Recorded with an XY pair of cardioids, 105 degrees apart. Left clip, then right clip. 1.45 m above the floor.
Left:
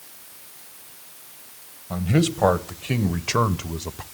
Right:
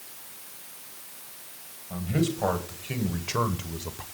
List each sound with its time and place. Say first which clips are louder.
1.9 s a man speaking: left 5 dB; 70° left, 1.7 m; by 4.0 s 35° left, 0.9 m